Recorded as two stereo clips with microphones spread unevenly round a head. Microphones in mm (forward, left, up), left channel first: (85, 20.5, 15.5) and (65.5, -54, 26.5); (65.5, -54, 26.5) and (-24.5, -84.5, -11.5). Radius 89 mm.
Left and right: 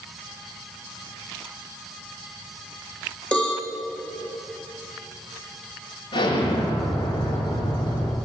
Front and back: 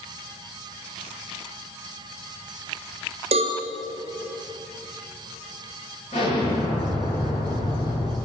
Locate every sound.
3.3 s a cowbell: 160° left, 3.5 m
6.1 s an explosion: 65° left, 8.5 m